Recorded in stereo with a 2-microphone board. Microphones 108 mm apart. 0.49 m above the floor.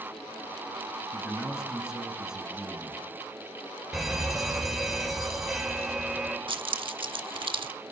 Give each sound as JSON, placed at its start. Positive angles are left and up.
{"t": 1.1, "sound": "a man speaking", "side_deg": -5, "distance_m": 5.5}
{"t": 3.9, "sound": "a fire alarm", "side_deg": 0, "distance_m": 3.5}
{"t": 6.5, "sound": "keys jangling", "side_deg": -50, "distance_m": 0.9}